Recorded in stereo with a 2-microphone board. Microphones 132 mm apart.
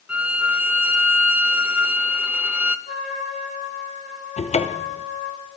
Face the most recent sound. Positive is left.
turn(degrees=60)  # may be behind; listen again after turning